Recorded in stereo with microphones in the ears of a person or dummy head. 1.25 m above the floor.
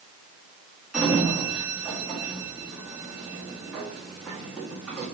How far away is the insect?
No insect in this recording.